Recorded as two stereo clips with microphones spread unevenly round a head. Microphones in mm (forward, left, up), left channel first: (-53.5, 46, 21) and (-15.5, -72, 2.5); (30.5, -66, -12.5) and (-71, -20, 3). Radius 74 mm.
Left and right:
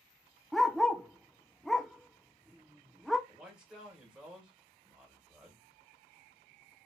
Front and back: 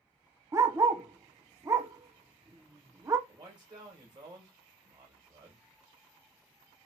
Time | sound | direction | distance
0.5 | a dog barking | 175° right | 0.5 m
3.3 | a man speaking | 150° right | 1.8 m